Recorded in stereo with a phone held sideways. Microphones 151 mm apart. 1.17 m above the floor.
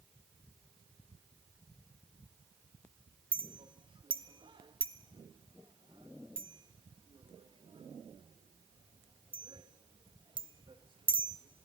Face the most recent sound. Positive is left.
turn(degrees=-35)  # may be behind; listen again after turning